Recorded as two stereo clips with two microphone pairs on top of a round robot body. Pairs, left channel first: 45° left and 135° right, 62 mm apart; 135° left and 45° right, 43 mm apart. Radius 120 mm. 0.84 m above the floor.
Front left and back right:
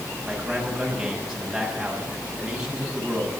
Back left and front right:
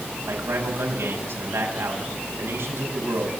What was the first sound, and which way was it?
A man speaking, 50° right.